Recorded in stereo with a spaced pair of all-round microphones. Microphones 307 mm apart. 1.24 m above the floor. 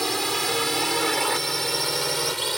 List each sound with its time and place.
0.0 s a drone: centre (ahead or behind)